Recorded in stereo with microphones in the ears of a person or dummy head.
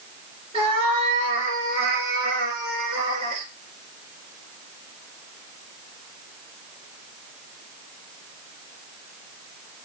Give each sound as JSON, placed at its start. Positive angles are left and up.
{"t": 0.5, "sound": "a cat meowing", "side_deg": -25, "distance_m": 2.5}